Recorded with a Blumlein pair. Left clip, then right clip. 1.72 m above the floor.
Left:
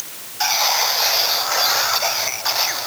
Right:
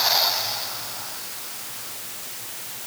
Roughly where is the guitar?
No guitar in this recording.